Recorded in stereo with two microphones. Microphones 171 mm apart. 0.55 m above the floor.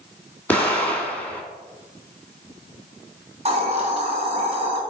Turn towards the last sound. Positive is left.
turn(degrees=-40)  # may be behind; listen again after turning